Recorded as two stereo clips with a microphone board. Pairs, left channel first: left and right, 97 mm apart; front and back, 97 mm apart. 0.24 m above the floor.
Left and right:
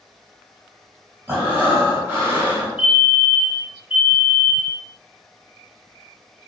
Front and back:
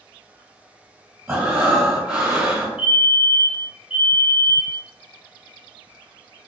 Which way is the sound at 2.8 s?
135° right.